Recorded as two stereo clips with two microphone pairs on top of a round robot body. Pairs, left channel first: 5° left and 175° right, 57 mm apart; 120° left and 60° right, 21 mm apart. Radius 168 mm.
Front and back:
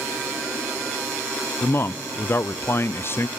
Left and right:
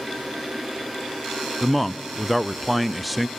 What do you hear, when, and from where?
1.6 s a man speaking: 20° left, 0.6 m